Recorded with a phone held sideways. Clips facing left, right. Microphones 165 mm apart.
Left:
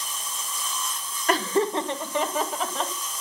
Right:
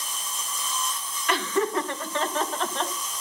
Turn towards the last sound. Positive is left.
turn(degrees=0)  # may be behind; listen again after turning